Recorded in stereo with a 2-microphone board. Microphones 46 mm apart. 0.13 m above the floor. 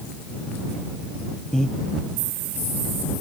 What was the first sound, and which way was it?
Breathing, 15° left (ahead or behind).